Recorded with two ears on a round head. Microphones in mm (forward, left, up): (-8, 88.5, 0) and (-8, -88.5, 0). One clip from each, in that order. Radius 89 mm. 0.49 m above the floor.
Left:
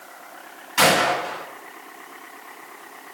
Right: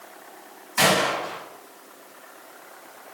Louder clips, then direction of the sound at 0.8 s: Left 3 dB; 5° left (ahead or behind).